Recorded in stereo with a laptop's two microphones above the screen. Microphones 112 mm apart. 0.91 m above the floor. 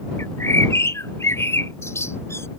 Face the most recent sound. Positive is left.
turn(degrees=25)  # may be behind; listen again after turning